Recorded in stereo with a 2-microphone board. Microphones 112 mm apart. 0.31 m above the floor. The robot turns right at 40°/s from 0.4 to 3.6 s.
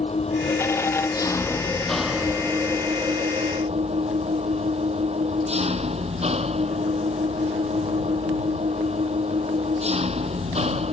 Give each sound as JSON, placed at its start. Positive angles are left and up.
{"t": 0.0, "sound": "an engine running", "azimuth_deg": 115}